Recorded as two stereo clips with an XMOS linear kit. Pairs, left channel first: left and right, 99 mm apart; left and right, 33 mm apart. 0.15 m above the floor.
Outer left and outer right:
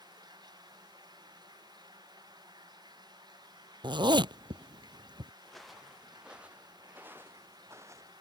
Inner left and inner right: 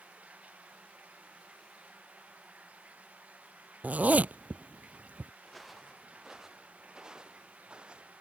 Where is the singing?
I don't hear singing.